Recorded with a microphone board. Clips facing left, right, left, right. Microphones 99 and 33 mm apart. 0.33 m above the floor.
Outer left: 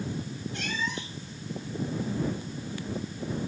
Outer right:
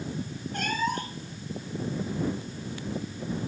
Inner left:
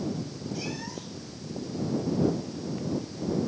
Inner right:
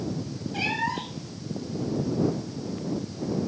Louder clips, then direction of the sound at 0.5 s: Outer right 6 dB, inner right 11 dB; 45° right (ahead or behind).